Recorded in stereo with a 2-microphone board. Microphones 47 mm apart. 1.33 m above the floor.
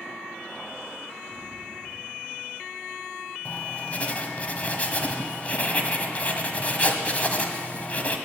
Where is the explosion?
25° right (ahead or behind), 1.3 m.